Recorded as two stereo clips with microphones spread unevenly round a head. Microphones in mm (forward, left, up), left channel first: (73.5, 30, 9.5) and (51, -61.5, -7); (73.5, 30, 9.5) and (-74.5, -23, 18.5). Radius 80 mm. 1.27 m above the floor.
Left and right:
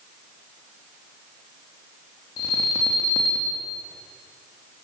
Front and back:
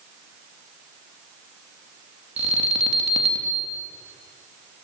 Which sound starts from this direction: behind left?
An alarm, at 2.4 s.